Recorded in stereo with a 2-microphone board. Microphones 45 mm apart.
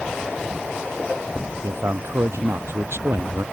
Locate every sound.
1.6 s a man speaking: 70° right (ahead or behind); by 3.5 s 65° right (ahead or behind)